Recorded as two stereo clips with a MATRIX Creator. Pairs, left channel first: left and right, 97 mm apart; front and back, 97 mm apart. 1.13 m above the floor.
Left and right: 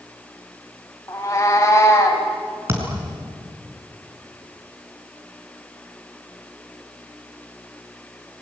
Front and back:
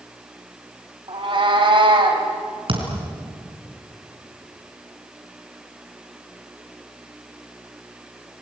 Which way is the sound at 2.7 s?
155° right.